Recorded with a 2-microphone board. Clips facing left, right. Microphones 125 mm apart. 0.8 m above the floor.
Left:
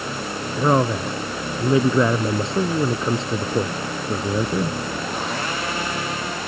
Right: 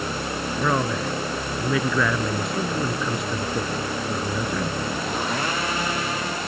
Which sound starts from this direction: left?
A man speaking, at 0.6 s.